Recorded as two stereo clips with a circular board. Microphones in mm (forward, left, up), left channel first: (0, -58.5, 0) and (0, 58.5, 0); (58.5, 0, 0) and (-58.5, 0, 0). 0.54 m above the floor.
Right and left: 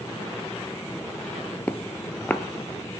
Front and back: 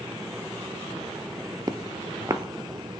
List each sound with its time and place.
1.7 s footsteps: 155° right, 0.5 m